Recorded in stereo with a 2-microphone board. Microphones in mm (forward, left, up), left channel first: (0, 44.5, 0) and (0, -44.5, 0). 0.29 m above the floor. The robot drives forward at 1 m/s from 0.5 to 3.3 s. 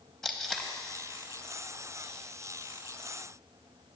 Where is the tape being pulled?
5° left (ahead or behind), 0.6 m.